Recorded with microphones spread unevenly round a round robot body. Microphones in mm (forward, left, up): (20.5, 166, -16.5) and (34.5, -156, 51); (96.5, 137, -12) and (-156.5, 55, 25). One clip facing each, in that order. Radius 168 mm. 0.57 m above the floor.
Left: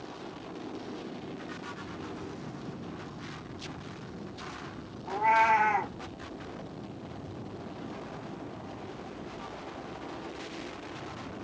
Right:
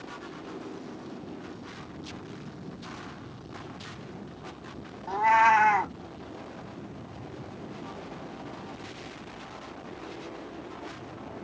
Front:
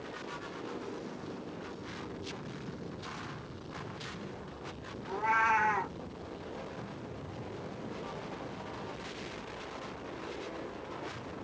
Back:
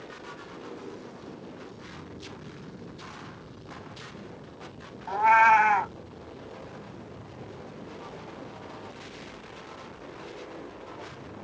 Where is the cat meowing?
145° right, 0.8 m.